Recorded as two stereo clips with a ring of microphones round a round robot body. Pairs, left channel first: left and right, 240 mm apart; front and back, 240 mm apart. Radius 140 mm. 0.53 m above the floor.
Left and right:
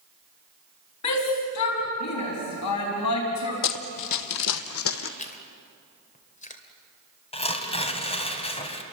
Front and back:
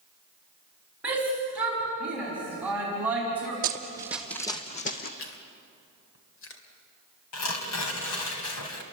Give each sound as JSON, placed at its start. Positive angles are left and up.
{"t": 1.0, "sound": "a shout", "azimuth_deg": 95, "distance_m": 5.0}
{"t": 3.6, "sound": "running footsteps", "azimuth_deg": 120, "distance_m": 1.2}
{"t": 5.2, "sound": "chewing", "azimuth_deg": 35, "distance_m": 2.5}
{"t": 7.3, "sound": "tearing paper", "azimuth_deg": 25, "distance_m": 3.0}